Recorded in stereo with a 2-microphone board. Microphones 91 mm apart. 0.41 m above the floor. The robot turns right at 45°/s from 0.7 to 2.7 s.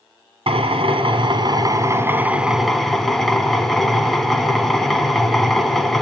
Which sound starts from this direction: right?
A drill, at 0.5 s.